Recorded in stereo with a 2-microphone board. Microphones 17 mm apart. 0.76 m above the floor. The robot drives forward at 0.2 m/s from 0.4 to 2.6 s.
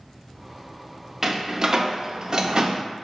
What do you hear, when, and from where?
1.2 s a door slam: 35° right (ahead or behind), 0.5 m; by 2.8 s 40° right (ahead or behind), 0.5 m